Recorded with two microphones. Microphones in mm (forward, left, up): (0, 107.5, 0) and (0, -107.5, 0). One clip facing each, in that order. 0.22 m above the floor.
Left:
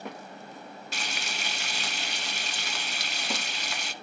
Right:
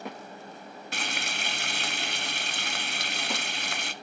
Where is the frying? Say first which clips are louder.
Right 3 dB; 55° right (ahead or behind), 1.0 m.